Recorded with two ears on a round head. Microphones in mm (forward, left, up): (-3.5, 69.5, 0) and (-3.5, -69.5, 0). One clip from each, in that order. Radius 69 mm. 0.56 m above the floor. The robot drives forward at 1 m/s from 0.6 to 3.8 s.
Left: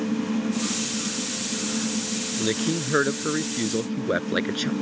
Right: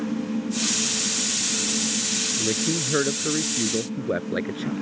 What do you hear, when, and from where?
2.4 s a man speaking: 80° left; by 4.7 s 85° left